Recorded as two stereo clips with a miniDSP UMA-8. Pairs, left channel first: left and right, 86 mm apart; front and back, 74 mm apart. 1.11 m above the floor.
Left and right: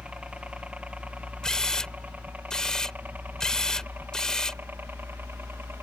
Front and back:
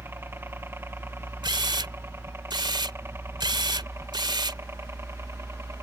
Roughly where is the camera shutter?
Behind.